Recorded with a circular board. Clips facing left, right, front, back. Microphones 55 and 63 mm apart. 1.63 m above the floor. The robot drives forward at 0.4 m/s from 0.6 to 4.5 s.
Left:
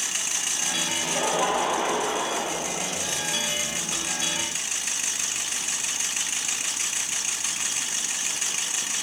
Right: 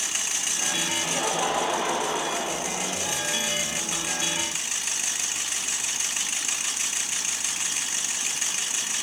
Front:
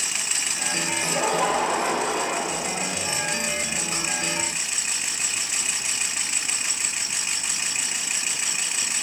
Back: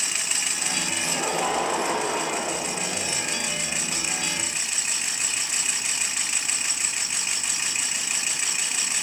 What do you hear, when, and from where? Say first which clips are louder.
1.0 s laughter: left 3 dB, front 4 dB; 20° left, 4 m; by 2.9 s 30° left, 3 m